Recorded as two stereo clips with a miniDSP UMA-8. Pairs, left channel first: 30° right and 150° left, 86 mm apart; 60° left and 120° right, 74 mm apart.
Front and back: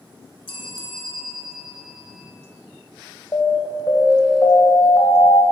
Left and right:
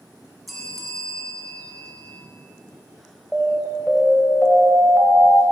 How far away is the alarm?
About 1.3 m.